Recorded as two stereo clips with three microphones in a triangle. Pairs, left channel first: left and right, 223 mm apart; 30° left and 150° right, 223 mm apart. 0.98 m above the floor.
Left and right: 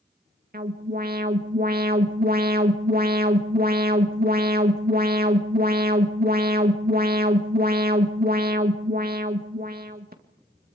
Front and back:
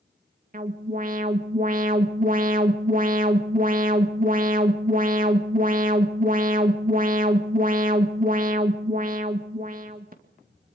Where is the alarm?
115° right, 2 m.